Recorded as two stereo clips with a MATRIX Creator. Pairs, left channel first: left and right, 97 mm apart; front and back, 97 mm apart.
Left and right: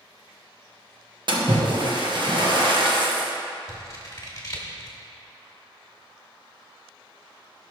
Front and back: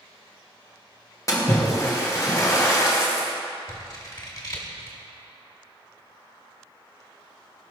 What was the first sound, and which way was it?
A splash, 55° right.